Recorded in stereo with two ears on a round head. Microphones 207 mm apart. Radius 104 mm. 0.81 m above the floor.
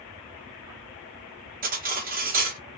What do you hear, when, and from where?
1.6 s cutlery clinking: 35° right (ahead or behind), 0.8 m